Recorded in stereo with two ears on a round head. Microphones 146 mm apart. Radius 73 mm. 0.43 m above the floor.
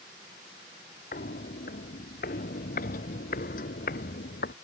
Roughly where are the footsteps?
Left.